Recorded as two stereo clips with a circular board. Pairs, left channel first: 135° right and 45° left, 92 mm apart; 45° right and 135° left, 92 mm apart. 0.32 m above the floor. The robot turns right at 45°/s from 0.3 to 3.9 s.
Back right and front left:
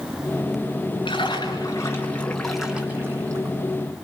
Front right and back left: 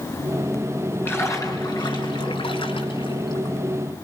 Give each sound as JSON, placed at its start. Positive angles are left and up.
{"t": 1.1, "sound": "a splash", "azimuth_deg": -110, "distance_m": 4.5}